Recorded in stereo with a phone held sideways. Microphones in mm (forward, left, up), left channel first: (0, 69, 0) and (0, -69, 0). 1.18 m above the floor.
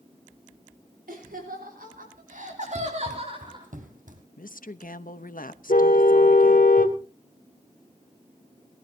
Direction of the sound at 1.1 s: 85° right.